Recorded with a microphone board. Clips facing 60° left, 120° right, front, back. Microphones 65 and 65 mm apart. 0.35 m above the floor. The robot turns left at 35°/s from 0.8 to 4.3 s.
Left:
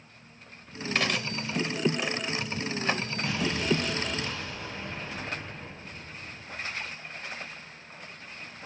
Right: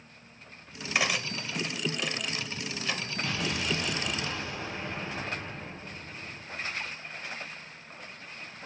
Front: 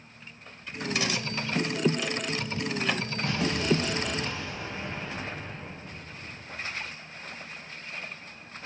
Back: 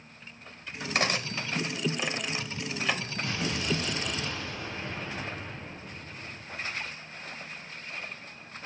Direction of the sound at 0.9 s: 160° left.